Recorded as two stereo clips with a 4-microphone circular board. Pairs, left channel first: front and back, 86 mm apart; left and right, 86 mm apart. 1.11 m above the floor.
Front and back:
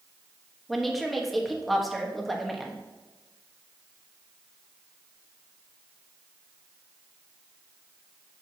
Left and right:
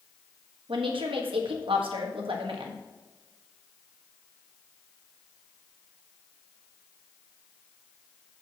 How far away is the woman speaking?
About 1.3 m.